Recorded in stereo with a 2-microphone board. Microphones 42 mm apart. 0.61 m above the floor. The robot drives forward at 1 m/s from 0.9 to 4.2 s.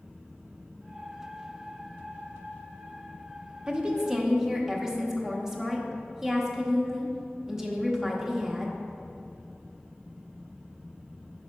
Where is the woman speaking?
20° right (ahead or behind), 0.6 m; by 8.8 s 15° right (ahead or behind), 0.9 m.